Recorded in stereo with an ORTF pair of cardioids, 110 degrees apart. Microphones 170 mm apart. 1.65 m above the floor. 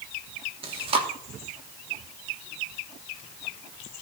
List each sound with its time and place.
0.6 s chewing: 35° right, 3 m